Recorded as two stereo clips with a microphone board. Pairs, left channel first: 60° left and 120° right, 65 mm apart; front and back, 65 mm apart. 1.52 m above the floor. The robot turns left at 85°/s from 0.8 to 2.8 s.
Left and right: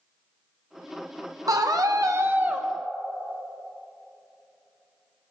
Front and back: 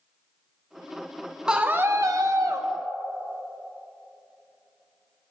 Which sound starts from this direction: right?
A scream, at 1.5 s.